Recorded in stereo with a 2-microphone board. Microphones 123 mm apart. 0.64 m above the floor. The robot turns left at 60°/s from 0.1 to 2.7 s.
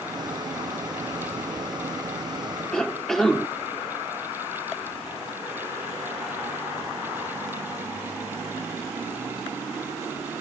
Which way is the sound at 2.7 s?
5° left (ahead or behind).